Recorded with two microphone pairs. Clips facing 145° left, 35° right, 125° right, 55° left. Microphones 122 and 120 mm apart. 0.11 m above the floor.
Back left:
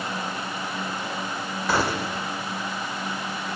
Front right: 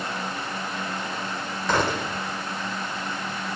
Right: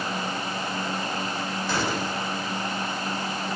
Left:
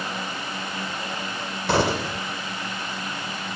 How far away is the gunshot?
About 2.5 m.